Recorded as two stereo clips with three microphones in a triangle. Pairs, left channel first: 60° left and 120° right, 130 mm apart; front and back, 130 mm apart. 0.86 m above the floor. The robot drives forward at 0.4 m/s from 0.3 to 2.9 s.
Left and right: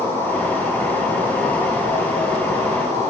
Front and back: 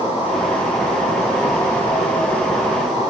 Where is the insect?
50° right, 1.7 m; by 3.1 s 90° right, 1.3 m.